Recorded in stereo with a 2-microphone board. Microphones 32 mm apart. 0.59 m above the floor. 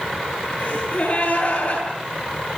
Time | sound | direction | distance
0.6 | a gasp | 40° left (ahead or behind) | 9 m